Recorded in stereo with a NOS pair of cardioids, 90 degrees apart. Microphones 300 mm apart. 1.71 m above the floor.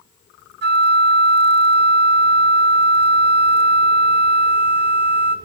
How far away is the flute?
About 0.9 m.